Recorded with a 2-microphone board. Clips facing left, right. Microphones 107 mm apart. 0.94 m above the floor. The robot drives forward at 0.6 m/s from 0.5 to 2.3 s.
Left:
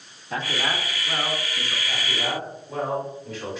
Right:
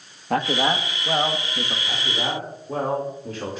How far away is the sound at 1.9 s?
About 2 m.